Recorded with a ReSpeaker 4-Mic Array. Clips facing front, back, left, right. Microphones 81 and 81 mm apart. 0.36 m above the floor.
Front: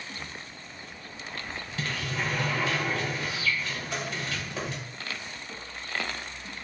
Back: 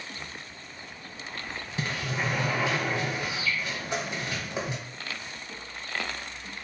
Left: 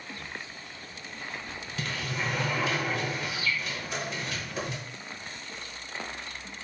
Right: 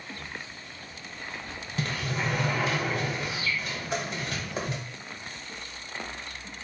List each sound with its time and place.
1.8 s a sliding door: 125° right, 0.9 m